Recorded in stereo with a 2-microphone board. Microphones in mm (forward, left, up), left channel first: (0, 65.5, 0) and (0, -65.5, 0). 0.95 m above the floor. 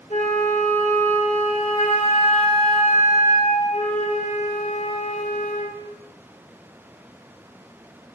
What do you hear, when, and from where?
0.1 s a flute: 65° left (ahead or behind), 1.3 m